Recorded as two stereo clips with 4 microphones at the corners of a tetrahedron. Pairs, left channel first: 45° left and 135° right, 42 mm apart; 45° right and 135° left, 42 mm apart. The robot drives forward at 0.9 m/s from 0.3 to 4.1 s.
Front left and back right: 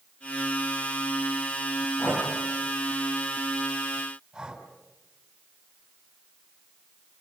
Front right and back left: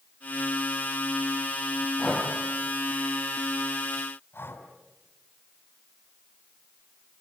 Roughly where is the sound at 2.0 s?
Ahead left.